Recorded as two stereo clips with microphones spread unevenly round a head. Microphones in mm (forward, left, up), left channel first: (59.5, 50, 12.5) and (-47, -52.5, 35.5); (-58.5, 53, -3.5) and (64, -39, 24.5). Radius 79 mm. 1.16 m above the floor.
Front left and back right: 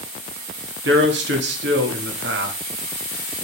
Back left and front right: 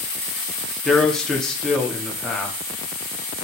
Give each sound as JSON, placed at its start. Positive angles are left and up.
{"t": 0.8, "sound": "a man speaking", "azimuth_deg": -130, "distance_m": 2.5}